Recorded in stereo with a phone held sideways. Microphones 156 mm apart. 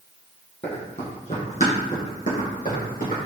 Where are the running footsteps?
40° left (ahead or behind), 1.9 m; by 3.2 s 60° left (ahead or behind), 3 m.